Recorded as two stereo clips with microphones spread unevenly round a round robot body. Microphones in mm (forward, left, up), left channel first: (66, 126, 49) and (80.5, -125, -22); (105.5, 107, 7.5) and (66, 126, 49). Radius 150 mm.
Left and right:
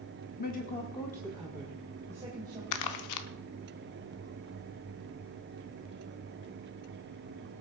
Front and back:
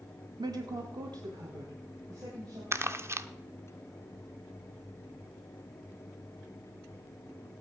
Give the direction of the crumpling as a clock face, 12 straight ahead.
9 o'clock.